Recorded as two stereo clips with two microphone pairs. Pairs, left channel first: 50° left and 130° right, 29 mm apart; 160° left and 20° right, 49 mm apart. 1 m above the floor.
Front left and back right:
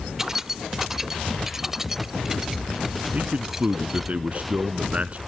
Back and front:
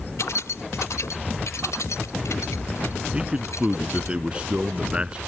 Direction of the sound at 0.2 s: 160° left.